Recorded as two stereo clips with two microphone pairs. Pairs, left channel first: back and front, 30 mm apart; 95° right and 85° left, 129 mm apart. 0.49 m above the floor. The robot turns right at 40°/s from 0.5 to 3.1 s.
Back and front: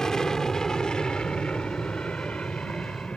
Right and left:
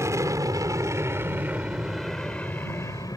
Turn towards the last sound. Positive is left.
turn(degrees=-150)